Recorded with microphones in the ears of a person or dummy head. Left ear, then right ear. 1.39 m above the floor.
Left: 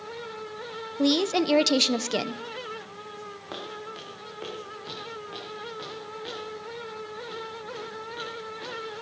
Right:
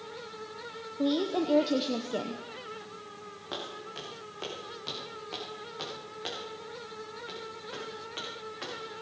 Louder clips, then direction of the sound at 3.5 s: Even; 10° left (ahead or behind).